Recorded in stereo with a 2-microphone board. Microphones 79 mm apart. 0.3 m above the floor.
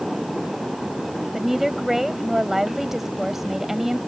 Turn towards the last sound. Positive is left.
turn(degrees=-5)  # may be behind; listen again after turning